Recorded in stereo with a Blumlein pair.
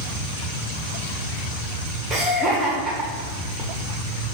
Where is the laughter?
5° right, 0.9 m.